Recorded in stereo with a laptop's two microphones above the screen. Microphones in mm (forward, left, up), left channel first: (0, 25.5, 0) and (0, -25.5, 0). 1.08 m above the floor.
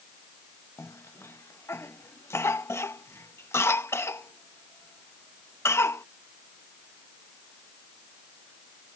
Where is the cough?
65° left (ahead or behind).